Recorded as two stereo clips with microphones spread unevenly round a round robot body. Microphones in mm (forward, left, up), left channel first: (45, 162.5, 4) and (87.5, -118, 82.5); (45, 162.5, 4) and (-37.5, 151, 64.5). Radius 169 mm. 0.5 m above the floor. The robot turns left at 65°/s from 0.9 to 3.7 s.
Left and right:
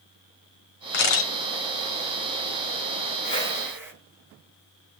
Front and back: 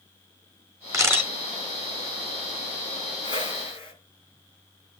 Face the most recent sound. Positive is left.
turn(degrees=5)